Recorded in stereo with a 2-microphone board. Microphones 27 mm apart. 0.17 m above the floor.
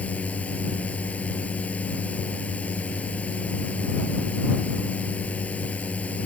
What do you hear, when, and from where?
0.0 s a drone: 65° left (ahead or behind)